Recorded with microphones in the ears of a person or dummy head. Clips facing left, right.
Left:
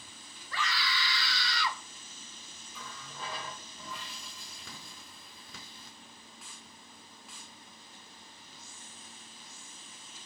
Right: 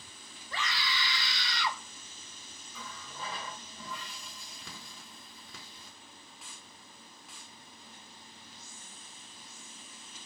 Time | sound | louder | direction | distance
0.5 | a scream | left 1 dB | 20° right (ahead or behind) | 3 m
2.7 | a running tap | right 1 dB | 5° left (ahead or behind) | 3 m